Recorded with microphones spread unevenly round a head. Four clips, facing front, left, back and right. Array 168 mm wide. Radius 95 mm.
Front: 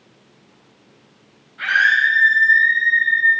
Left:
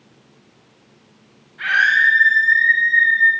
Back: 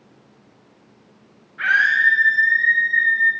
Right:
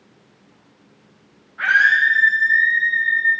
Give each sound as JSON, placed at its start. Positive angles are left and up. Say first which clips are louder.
{"t": 1.6, "sound": "a scream", "louder": "right 1 dB, front 1 dB", "azimuth_deg": -115, "distance_m": 8.0}